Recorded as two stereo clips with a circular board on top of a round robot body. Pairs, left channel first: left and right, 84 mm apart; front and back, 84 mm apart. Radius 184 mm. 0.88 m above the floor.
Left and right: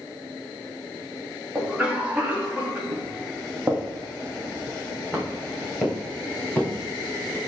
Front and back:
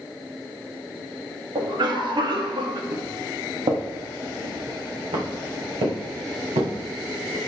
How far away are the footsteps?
About 1.7 m.